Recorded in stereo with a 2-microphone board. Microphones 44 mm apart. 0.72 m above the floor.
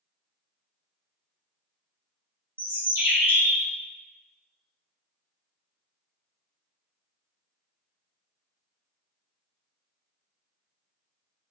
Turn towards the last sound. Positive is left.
turn(degrees=-60)  # may be behind; listen again after turning